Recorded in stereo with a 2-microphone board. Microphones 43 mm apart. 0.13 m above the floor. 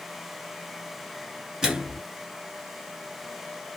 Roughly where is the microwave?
Centre.